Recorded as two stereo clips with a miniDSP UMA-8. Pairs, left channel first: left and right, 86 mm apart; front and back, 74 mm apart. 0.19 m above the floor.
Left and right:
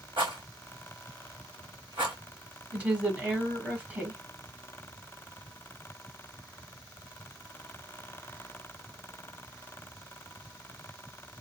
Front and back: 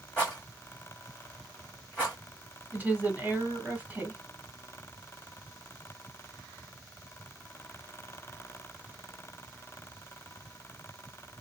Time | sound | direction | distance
0.2 | a rattle | 80° right | 2.0 m
2.7 | a woman speaking | 145° right | 1.4 m